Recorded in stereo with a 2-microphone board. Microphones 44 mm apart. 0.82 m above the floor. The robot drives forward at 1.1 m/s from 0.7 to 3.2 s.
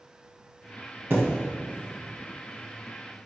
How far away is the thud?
About 2.5 m.